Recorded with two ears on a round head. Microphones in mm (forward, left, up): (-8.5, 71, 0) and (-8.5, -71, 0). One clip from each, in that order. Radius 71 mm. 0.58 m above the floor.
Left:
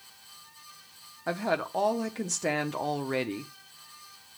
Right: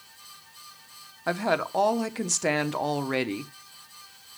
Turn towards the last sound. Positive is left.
turn(degrees=-15)  # may be behind; listen again after turning